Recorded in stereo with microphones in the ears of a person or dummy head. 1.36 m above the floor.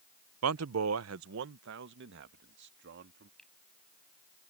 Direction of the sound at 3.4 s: 5° left (ahead or behind).